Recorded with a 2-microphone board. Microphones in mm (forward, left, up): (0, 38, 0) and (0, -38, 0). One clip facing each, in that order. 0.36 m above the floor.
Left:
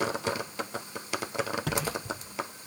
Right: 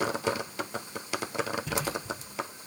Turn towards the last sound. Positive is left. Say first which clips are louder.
# even
turn(degrees=75)  # may be behind; listen again after turning